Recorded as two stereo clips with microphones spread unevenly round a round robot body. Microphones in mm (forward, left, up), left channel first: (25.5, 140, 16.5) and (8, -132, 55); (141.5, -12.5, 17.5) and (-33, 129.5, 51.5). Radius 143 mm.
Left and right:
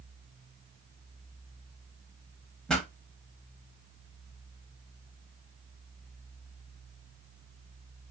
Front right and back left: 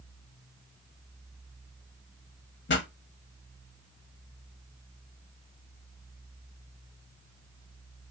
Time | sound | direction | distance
2.7 | a pop | 10° right | 0.7 m